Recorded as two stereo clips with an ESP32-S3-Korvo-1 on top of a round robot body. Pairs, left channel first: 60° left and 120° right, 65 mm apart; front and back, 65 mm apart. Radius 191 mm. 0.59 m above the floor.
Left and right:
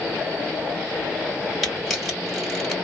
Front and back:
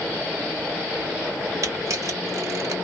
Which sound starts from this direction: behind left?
A camera shutter, at 1.6 s.